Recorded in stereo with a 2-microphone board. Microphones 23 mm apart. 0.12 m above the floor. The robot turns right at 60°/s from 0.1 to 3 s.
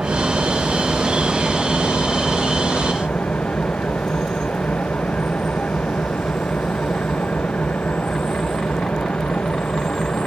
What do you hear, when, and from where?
0.0 s an engine running: 75° right; by 10.3 s 100° left